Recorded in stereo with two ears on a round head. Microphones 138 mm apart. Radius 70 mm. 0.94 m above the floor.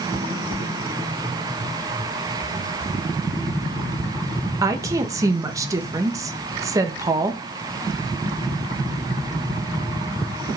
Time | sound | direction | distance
4.6 | a woman speaking | 20° right (ahead or behind) | 1.1 m